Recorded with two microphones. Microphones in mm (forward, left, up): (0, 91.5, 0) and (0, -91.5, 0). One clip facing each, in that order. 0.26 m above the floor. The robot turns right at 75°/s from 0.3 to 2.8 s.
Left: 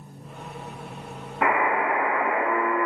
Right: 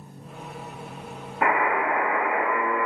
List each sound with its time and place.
1.4 s a buzzer: straight ahead, 1.1 m; by 2.9 s 105° left, 1.1 m